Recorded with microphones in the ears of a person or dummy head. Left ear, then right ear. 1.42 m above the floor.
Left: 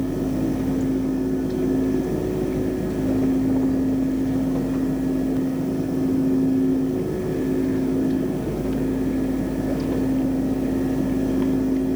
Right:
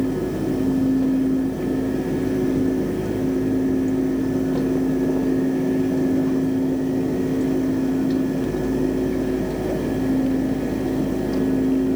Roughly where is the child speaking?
No child speaking in this recording.